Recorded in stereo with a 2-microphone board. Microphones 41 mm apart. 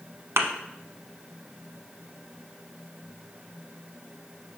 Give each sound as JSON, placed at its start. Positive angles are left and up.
{"t": 0.4, "sound": "a thud", "side_deg": -75, "distance_m": 0.8}